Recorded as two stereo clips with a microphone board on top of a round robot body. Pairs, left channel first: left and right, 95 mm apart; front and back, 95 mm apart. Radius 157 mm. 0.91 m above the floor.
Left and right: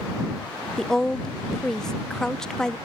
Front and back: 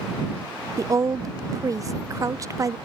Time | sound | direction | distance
0.8 | a woman speaking | 170° left | ?